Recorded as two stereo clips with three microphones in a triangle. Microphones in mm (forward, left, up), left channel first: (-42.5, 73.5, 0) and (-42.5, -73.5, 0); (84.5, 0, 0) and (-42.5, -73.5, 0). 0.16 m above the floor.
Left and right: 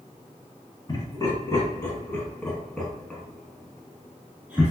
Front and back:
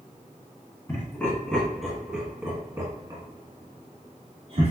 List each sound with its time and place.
0.9 s laughter: 80° left, 1.4 m; by 4.7 s 165° right, 2 m